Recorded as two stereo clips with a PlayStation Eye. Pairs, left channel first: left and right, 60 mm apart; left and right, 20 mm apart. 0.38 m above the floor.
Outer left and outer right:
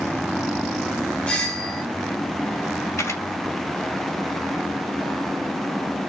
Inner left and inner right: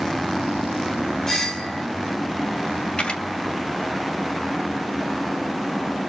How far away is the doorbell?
About 1.4 m.